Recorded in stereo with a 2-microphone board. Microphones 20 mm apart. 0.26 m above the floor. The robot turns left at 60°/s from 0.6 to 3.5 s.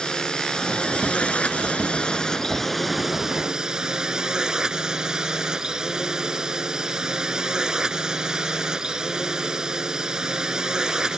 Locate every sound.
0.0 s a drone: 140° left; by 11.2 s 35° right